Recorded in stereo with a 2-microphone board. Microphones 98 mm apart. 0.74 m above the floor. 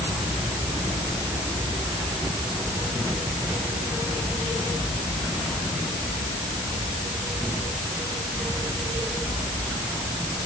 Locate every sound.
Only background noise.